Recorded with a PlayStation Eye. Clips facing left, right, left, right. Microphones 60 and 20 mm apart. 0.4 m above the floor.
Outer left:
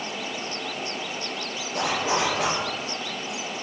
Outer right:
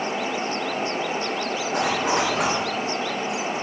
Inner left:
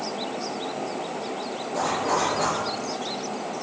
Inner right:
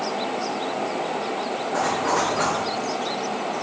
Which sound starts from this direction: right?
A zipper, at 1.7 s.